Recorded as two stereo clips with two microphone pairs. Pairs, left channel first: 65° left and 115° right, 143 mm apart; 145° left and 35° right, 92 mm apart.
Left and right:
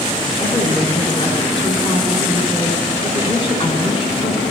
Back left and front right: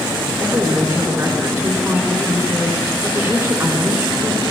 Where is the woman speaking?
20° left, 2.5 m.